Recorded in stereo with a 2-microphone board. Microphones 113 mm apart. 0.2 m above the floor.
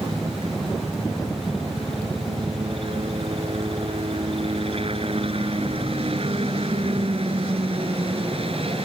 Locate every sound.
0.0 s a helicopter: 55° right (ahead or behind)